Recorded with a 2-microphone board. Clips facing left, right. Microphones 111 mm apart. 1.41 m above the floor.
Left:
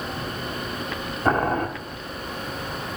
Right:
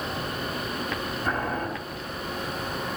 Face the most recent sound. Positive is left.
turn(degrees=55)  # may be behind; listen again after turning